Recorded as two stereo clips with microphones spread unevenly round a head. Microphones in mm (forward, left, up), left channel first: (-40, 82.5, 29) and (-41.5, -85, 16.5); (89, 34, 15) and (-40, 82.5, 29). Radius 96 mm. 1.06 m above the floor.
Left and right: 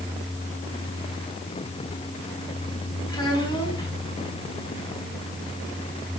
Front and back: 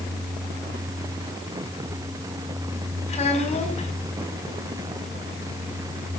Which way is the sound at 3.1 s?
20° left.